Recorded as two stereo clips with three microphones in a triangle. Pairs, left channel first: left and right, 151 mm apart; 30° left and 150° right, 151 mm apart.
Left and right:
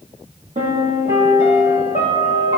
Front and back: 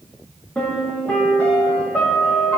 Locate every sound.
0.6 s a piano: 50° right, 3 m